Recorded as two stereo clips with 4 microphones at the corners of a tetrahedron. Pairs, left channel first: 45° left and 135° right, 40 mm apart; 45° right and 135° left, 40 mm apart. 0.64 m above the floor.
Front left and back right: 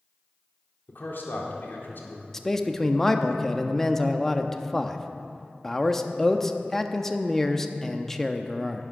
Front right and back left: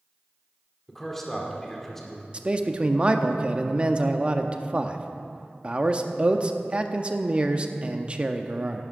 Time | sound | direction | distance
0.9 | a man speaking | 35° left | 1.8 m
2.3 | a man speaking | 115° left | 0.5 m